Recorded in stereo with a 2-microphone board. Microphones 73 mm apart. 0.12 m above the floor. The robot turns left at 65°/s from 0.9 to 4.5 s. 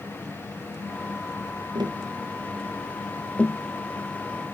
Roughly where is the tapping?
Right.